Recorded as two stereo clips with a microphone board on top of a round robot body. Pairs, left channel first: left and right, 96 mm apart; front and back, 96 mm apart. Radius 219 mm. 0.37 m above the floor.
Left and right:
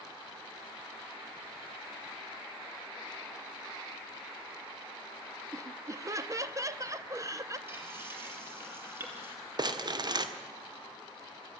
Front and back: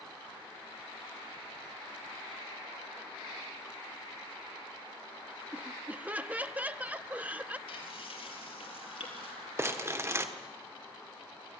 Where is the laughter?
115° right, 1.1 m.